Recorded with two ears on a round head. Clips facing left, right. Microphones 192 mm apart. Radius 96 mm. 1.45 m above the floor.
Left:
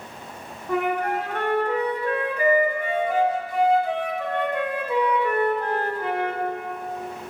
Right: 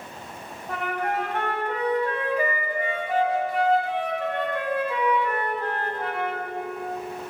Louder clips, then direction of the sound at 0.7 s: Left 5 dB; 80° left.